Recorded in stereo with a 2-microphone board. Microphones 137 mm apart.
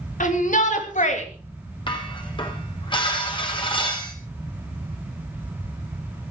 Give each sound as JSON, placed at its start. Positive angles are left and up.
{"t": 0.2, "sound": "a shout", "side_deg": 70, "distance_m": 3.5}
{"t": 1.9, "sound": "dishes clattering", "side_deg": 35, "distance_m": 3.5}